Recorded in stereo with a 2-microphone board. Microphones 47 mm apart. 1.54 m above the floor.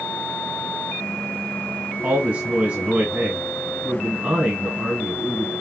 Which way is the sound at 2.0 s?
30° right (ahead or behind).